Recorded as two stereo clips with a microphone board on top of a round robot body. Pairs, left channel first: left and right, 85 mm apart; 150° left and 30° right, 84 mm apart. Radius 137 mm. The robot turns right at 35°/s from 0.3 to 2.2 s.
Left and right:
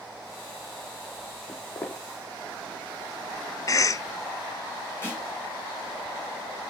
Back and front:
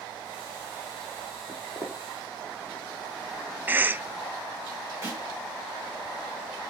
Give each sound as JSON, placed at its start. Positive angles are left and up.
{"t": 1.5, "sound": "footsteps", "azimuth_deg": 10, "distance_m": 2.5}
{"t": 3.7, "sound": "a cough", "azimuth_deg": 40, "distance_m": 0.6}
{"t": 5.0, "sound": "a snare drum", "azimuth_deg": 25, "distance_m": 5.5}